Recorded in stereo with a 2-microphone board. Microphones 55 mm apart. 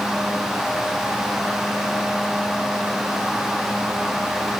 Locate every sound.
Only background noise.